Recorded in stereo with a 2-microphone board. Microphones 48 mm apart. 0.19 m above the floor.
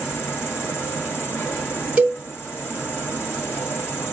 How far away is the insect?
About 2.5 m.